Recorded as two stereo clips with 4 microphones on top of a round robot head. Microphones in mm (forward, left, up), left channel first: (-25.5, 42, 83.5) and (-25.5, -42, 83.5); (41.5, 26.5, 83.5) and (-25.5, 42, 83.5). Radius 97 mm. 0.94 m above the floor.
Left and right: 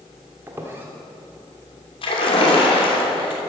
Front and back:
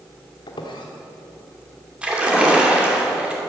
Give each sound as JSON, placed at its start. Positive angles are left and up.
{"t": 0.5, "sound": "a squeak", "azimuth_deg": -20, "distance_m": 1.4}
{"t": 2.0, "sound": "a splash", "azimuth_deg": 90, "distance_m": 3.0}